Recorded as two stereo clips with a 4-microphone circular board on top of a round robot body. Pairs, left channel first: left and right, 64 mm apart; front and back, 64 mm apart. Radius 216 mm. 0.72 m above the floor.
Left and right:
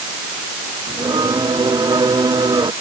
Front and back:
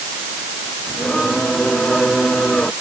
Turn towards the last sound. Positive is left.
turn(degrees=-85)